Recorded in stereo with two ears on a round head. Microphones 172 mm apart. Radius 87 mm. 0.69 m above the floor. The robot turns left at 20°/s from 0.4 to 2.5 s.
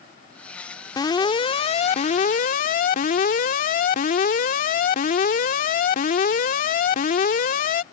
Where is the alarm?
155° left; by 7.8 s 125° left.